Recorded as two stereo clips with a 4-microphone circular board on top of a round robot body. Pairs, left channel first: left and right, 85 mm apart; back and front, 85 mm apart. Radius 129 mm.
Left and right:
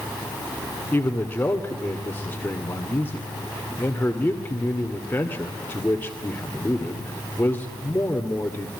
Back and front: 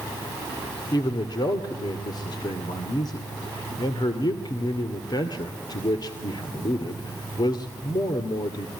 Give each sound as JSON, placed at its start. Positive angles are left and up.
{"t": 0.9, "sound": "a man speaking", "azimuth_deg": 155, "distance_m": 2.0}